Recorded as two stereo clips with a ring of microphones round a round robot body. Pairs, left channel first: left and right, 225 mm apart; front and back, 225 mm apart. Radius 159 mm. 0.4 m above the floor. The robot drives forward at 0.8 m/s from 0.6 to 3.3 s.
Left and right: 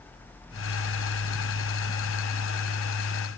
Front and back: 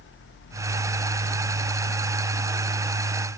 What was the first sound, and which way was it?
Only background noise.